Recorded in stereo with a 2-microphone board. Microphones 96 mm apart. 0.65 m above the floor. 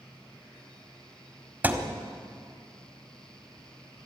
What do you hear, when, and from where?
1.6 s a thud: 20° right (ahead or behind), 1.5 m